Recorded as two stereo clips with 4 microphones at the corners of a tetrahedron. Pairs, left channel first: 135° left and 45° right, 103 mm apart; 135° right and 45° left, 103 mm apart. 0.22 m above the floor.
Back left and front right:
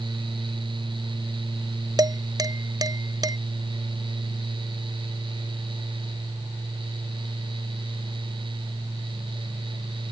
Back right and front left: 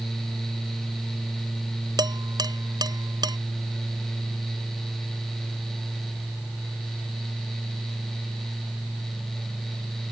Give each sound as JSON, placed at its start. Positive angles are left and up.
{"t": 2.0, "sound": "dishes clattering", "azimuth_deg": 0}